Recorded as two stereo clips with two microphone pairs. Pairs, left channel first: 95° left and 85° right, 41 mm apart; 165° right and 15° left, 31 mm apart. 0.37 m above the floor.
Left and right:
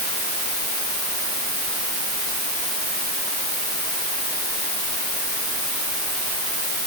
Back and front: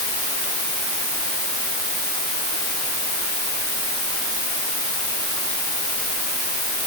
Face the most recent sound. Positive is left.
No sound to turn to.